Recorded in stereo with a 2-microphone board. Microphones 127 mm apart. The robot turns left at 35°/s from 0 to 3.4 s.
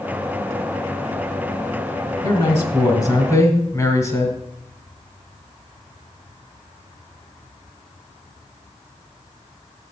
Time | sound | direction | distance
2.2 | a man speaking | 20° left (ahead or behind) | 1.6 m